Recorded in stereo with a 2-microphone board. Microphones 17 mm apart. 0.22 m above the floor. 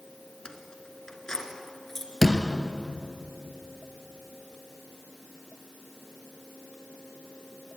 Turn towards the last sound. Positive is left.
turn(degrees=15)  # may be behind; listen again after turning